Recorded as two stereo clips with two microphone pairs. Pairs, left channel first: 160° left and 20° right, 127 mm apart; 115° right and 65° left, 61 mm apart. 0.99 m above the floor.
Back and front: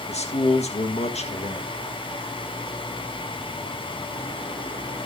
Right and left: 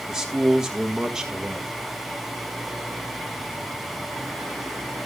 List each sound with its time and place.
0.1 s a man speaking: 145° left, 1.6 m